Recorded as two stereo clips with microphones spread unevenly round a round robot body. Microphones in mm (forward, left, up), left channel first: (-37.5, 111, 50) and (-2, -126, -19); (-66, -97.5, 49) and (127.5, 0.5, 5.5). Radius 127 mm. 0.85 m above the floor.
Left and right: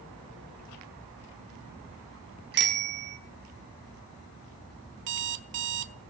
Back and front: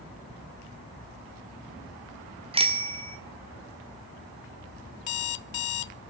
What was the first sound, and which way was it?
A bicycle bell, 35° right.